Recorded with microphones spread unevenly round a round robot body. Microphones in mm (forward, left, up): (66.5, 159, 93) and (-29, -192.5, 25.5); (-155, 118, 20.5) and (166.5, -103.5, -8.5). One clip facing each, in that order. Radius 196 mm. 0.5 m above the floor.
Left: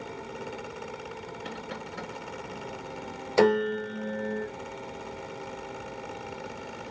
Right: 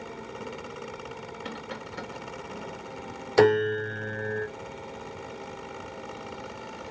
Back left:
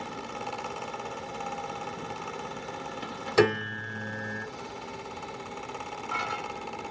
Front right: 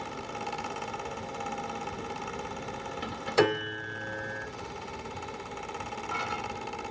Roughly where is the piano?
Behind.